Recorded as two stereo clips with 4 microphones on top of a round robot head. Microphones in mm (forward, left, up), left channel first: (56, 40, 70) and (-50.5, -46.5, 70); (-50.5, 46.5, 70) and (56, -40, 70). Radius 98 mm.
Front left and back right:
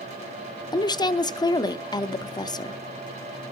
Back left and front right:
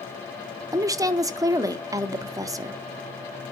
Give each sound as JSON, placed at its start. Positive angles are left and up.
{"t": 0.7, "sound": "a woman speaking", "azimuth_deg": 5, "distance_m": 0.8}